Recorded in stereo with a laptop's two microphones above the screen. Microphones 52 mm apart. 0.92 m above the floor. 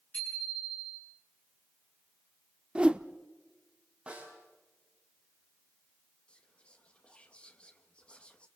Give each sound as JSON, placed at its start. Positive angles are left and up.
{"t": 0.1, "sound": "a bicycle bell", "side_deg": 25, "distance_m": 8.0}
{"t": 2.8, "sound": "a whoosh", "side_deg": -20, "distance_m": 0.9}
{"t": 4.1, "sound": "a snare drum", "side_deg": -25, "distance_m": 5.5}
{"t": 6.3, "sound": "whispering", "side_deg": 20, "distance_m": 1.4}